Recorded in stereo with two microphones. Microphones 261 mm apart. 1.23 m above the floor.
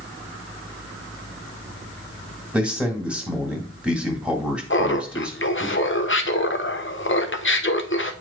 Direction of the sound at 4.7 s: 45° left (ahead or behind).